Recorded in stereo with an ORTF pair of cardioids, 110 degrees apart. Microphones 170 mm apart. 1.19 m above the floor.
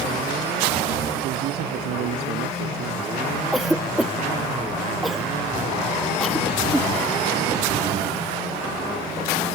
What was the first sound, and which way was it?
A man speaking, 70° right.